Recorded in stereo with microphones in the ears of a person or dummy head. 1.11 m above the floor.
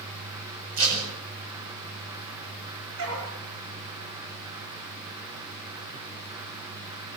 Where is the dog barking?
85° right, 8.5 m.